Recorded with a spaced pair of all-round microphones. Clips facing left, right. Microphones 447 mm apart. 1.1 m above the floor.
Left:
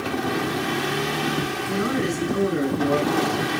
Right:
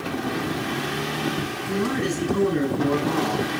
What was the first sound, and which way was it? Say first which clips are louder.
A man speaking: right 1 dB; 5° right (ahead or behind).